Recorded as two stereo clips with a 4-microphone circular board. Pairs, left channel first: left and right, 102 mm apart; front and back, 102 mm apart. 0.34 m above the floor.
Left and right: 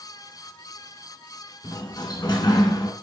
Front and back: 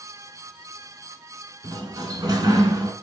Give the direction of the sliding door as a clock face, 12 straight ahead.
8 o'clock.